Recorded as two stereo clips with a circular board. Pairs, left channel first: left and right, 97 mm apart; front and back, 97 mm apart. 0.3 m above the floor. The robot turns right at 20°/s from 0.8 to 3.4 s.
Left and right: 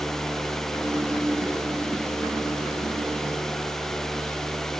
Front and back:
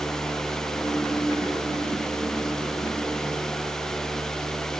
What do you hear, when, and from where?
Only background noise.